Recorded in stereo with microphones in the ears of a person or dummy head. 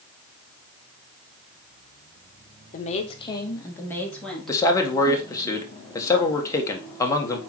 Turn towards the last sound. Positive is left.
turn(degrees=20)  # may be behind; listen again after turning